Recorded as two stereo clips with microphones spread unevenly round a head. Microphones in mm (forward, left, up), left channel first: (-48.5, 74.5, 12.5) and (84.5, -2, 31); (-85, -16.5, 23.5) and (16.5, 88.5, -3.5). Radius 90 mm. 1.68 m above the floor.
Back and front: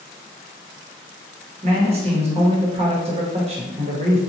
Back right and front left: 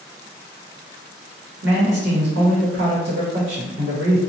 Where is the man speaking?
15° left, 0.9 m.